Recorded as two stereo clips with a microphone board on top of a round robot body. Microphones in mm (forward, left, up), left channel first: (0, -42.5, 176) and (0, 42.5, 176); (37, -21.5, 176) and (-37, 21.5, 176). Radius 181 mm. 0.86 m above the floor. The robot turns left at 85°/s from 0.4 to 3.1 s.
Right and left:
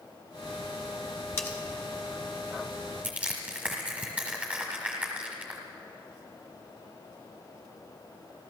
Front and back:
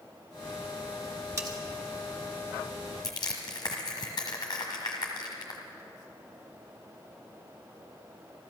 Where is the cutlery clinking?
150° right, 1.1 m; by 1.6 s 170° right, 1.1 m.